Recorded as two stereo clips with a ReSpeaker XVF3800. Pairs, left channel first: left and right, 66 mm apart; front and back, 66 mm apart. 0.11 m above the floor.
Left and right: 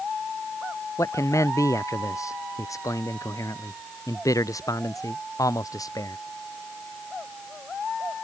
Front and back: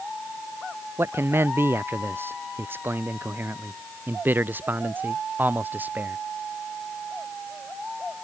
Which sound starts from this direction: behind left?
A man speaking, at 1.0 s.